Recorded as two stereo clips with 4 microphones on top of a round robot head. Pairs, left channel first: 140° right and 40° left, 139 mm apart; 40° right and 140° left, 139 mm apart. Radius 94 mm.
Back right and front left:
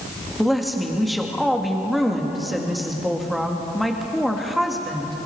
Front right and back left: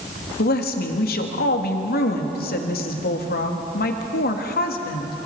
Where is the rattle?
I don't hear a rattle.